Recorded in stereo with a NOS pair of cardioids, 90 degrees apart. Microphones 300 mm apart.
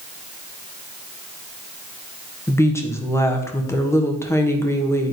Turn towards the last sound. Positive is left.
turn(degrees=10)